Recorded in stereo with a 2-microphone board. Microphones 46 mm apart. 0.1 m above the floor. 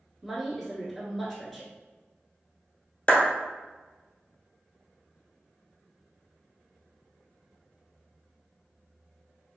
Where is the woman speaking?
Centre (ahead or behind), 1.3 m.